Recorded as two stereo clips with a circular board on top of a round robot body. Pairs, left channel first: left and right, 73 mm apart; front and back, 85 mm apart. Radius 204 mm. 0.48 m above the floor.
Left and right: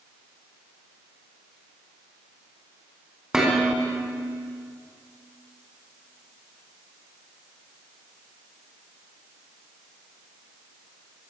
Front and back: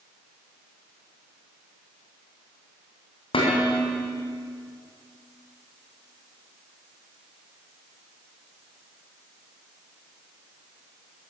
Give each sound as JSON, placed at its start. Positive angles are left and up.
{"t": 3.3, "sound": "dishes clattering", "azimuth_deg": -5, "distance_m": 3.0}